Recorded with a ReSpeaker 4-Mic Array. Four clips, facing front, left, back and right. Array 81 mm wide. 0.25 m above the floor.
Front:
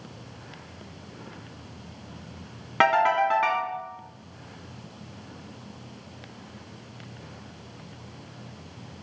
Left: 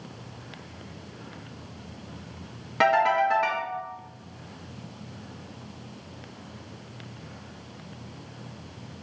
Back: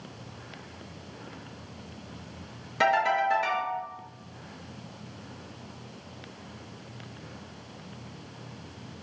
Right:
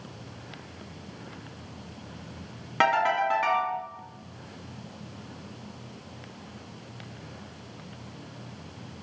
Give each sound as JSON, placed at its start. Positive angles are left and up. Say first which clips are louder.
{"t": 2.8, "sound": "a ringtone", "louder": "left 2 dB, front 3 dB", "azimuth_deg": -10, "distance_m": 1.6}